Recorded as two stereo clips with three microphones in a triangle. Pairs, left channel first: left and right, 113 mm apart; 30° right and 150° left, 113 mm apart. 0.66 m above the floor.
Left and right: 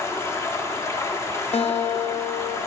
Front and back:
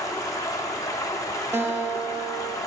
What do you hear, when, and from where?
0.0 s running water: 25° left, 0.8 m
1.5 s a guitar: 85° left, 0.8 m